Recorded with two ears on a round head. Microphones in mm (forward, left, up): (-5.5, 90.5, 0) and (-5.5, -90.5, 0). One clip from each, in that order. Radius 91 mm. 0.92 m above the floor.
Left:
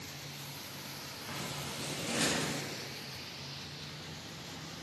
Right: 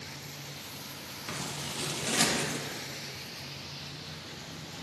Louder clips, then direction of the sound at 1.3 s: Right 4 dB; 60° right (ahead or behind).